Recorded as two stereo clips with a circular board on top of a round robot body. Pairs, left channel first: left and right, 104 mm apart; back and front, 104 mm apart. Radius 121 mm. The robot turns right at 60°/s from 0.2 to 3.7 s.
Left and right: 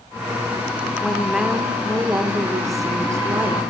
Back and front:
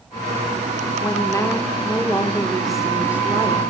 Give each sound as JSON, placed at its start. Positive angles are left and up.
{"t": 1.0, "sound": "a woman speaking", "azimuth_deg": 170, "distance_m": 0.9}